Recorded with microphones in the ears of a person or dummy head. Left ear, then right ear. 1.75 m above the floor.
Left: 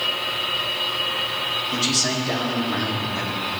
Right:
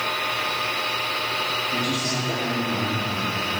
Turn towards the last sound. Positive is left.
turn(degrees=80)